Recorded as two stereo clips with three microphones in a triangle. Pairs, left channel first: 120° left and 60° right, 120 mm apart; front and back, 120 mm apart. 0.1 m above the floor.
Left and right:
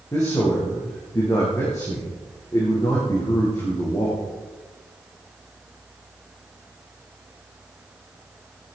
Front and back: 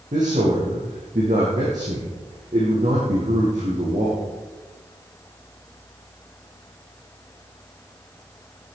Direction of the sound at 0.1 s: Straight behind.